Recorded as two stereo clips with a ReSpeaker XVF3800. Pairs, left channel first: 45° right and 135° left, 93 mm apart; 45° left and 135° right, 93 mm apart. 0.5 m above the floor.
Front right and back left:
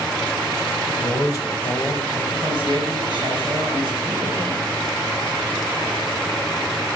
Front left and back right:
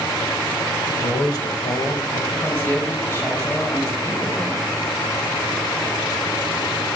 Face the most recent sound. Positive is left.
turn(degrees=110)